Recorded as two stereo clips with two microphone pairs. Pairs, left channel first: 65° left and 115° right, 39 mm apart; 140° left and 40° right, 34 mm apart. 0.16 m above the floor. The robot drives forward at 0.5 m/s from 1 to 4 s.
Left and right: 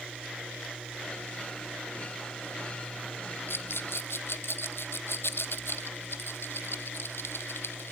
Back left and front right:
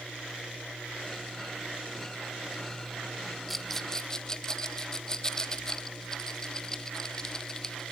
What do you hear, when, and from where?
3.5 s a rattle: 50° left, 1.0 m; by 7.9 s 65° left, 0.8 m